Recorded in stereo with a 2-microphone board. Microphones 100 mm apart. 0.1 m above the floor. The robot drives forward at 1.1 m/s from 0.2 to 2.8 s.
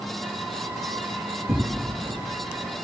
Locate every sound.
1.5 s tearing paper: 30° right (ahead or behind), 1.8 m